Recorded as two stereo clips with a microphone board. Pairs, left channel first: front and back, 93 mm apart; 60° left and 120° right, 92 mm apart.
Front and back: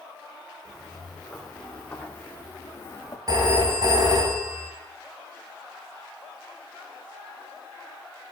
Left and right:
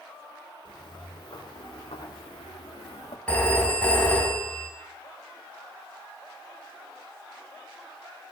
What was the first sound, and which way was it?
Footsteps, 90° left.